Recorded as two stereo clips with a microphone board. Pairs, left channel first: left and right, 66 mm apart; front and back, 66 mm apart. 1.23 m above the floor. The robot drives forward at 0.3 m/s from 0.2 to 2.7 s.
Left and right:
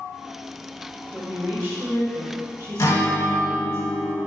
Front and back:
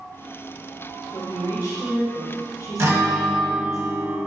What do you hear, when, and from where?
1.1 s a woman speaking: 30° right, 1.6 m; by 3.8 s 40° right, 1.2 m
2.8 s a guitar: 135° left, 1.0 m